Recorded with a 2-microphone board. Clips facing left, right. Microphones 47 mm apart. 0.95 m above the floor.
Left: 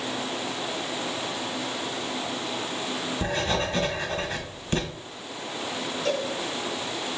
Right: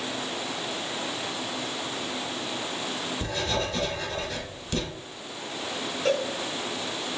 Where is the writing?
35° left (ahead or behind), 1.0 m.